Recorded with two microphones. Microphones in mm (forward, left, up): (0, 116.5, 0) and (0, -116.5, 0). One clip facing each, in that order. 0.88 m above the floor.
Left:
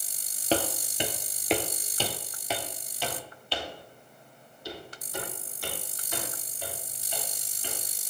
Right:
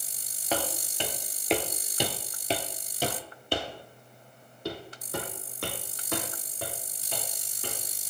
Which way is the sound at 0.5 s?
30° left (ahead or behind).